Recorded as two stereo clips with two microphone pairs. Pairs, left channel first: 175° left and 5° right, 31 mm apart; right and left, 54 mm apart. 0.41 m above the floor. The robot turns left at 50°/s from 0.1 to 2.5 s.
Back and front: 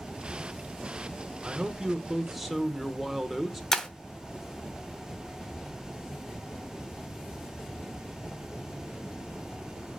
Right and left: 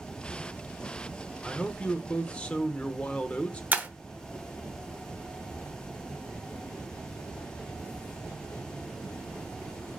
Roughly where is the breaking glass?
Left.